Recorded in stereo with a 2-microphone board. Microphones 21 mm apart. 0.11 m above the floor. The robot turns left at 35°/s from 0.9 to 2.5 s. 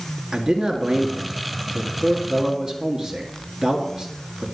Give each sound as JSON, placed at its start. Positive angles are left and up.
{"t": 0.3, "sound": "a man speaking", "side_deg": -35, "distance_m": 1.9}